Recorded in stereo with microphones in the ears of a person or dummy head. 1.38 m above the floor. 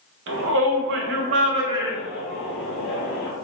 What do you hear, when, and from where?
0.3 s a shout: 75° right (ahead or behind), 0.8 m; by 3.3 s 15° left (ahead or behind), 1.4 m